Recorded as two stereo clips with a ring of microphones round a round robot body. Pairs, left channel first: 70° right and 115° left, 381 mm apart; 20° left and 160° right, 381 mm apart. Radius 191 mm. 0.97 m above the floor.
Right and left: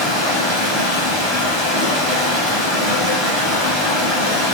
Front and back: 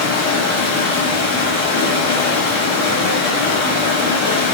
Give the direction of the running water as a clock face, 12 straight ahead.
11 o'clock.